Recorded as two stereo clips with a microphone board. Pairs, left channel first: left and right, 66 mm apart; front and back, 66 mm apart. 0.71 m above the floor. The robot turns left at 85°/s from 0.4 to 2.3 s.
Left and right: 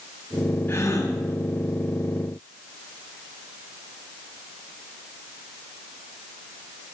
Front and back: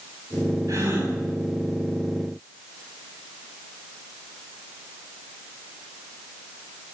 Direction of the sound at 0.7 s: 145° left.